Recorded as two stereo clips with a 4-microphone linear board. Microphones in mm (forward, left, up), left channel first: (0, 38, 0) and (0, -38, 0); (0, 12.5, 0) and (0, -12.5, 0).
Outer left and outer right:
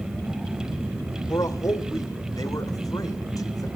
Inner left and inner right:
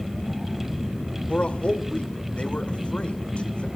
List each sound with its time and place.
1.3 s a man speaking: 55° left (ahead or behind), 2.0 m